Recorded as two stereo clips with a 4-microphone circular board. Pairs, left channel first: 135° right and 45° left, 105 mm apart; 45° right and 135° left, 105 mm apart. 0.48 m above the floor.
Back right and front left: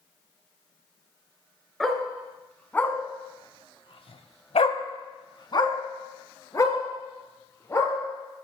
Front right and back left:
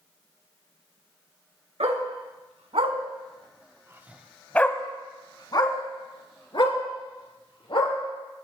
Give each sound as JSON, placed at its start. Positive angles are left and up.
{"t": 1.8, "sound": "a dog barking", "azimuth_deg": 140, "distance_m": 3.0}